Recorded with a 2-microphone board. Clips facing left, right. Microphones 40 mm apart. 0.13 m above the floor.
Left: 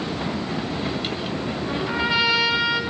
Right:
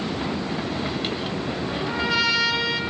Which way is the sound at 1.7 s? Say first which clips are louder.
Left 2 dB; 10° left (ahead or behind).